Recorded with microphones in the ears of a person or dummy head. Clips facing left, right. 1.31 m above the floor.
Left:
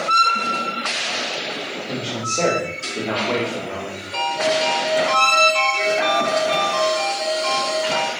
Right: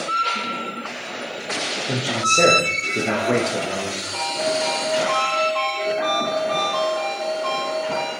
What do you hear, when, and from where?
1.9 s a man speaking: 20° right (ahead or behind), 1.1 m
4.1 s a ringtone: 35° left (ahead or behind), 6 m